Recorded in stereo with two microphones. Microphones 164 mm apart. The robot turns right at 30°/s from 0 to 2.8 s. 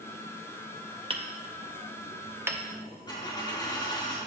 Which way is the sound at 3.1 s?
25° left (ahead or behind).